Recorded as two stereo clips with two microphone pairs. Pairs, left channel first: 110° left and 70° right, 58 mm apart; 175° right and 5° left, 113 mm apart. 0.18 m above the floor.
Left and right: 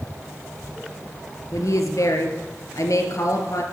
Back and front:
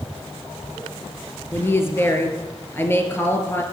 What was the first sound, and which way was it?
A woman speaking, 120° left.